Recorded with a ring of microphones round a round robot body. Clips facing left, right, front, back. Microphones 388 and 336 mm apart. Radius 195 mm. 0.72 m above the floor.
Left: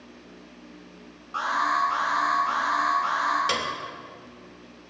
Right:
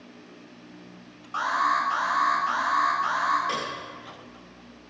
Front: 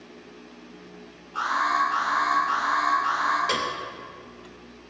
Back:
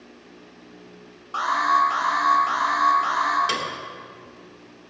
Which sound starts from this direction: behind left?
A piano, at 3.5 s.